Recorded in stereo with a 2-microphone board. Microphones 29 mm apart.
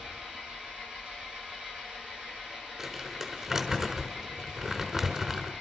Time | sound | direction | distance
0.0 | an engine running | 30° right (ahead or behind) | 10 m
2.8 | crumpling | 20° right (ahead or behind) | 4.5 m